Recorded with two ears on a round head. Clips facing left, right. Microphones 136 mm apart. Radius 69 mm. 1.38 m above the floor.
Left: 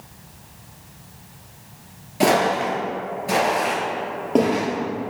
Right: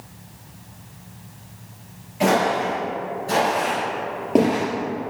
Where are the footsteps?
45° left (ahead or behind), 1.9 m; by 4.6 s 10° right (ahead or behind), 2 m.